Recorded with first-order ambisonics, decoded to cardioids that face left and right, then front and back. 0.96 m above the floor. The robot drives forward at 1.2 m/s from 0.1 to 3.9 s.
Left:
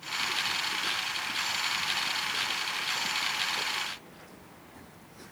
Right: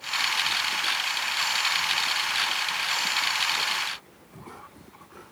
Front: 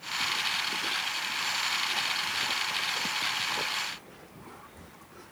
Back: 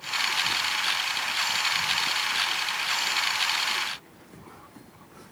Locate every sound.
Only background noise.